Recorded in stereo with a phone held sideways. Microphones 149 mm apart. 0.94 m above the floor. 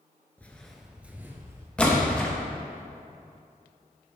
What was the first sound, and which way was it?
Footsteps, 10° left (ahead or behind).